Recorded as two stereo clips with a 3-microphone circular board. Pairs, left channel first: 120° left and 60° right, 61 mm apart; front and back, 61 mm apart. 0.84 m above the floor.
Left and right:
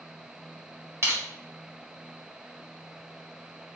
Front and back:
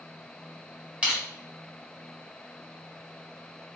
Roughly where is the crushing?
Right.